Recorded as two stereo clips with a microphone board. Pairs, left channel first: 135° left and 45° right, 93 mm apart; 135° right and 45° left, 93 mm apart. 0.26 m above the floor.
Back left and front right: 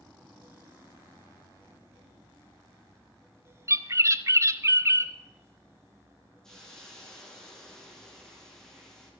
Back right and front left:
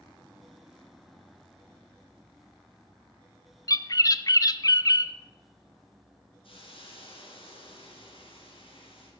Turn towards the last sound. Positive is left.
turn(degrees=-140)